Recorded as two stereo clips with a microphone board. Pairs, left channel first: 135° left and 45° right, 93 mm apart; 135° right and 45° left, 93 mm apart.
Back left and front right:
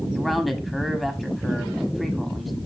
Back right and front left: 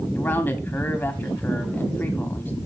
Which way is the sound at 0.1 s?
135° right.